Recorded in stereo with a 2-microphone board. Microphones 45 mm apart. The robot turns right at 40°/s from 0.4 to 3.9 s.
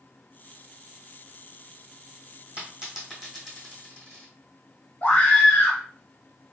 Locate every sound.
2.6 s a dropped coin: 25° right (ahead or behind), 2 m; by 4.3 s 30° left (ahead or behind), 2 m
5.0 s a scream: 35° left (ahead or behind), 0.7 m